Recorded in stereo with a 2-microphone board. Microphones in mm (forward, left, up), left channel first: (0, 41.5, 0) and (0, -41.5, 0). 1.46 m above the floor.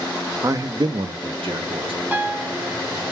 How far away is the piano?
About 0.5 m.